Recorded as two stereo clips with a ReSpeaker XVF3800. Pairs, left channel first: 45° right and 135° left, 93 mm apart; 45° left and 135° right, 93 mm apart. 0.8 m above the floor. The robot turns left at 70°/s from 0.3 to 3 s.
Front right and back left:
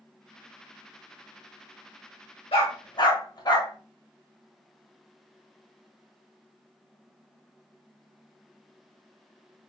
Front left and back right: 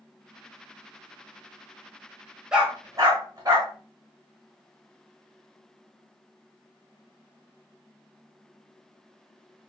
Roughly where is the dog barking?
Ahead right.